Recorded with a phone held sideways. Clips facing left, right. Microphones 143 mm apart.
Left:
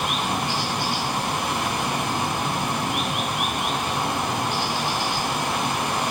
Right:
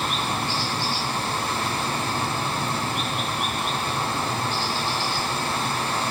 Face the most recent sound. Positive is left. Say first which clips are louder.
# left 1 dB
turn(degrees=15)  # may be behind; listen again after turning